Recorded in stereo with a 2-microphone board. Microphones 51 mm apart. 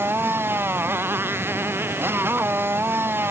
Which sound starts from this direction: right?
A motorcycle, at 0.0 s.